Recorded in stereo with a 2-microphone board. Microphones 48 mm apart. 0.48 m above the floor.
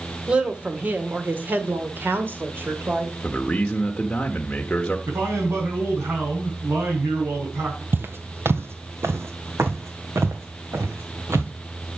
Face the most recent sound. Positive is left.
turn(degrees=-75)  # may be behind; listen again after turning